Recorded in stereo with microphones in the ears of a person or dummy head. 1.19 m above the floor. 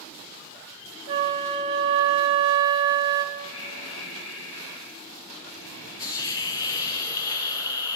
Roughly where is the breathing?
Left.